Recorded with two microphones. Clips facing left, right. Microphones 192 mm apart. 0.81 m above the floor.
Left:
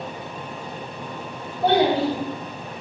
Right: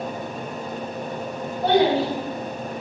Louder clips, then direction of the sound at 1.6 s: Even; 30° left (ahead or behind).